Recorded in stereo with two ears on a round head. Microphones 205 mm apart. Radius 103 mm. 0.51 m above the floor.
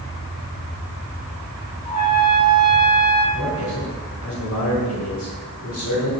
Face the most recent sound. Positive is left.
turn(degrees=75)  # may be behind; listen again after turning